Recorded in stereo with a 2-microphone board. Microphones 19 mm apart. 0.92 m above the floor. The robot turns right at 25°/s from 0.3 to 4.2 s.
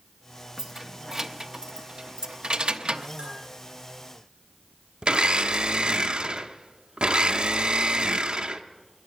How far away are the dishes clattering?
About 9.5 m.